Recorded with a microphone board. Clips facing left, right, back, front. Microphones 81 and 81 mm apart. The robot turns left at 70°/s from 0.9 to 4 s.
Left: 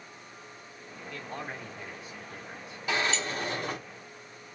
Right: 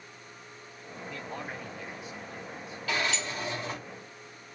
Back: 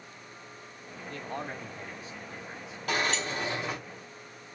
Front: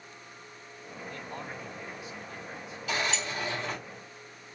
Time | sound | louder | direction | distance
1.1 | a man speaking | left 1 dB, back 4 dB | 160° right | 1.4 m
2.9 | a sliding door | left 2 dB, back 2 dB | 160° left | 1.5 m